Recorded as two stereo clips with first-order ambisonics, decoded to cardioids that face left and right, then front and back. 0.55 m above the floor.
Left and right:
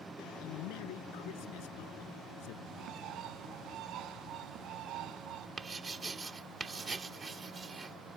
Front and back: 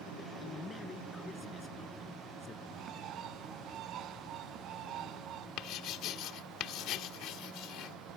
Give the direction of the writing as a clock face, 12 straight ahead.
1 o'clock.